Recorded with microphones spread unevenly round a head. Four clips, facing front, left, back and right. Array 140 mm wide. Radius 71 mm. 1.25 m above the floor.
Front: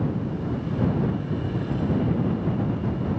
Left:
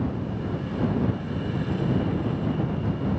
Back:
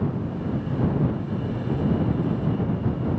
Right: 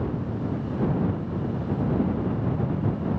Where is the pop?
No pop in this recording.